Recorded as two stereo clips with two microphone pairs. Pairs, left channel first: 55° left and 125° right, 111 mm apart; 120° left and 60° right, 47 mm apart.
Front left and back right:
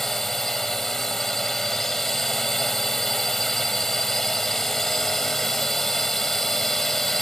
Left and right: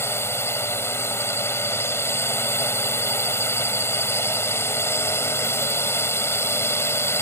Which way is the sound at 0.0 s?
140° left.